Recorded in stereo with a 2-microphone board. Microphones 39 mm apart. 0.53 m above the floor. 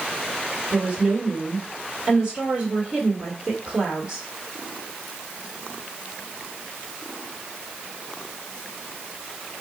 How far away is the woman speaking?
About 1.4 m.